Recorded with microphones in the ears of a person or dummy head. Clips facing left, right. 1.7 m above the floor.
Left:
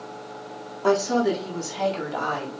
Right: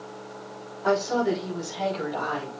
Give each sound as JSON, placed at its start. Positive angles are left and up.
{"t": 0.8, "sound": "a woman speaking", "side_deg": 50, "distance_m": 4.0}